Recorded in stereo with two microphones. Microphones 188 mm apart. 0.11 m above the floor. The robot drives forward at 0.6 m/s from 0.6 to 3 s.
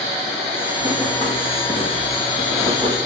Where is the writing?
20° right (ahead or behind), 4 m; by 3.1 s 30° right (ahead or behind), 3 m.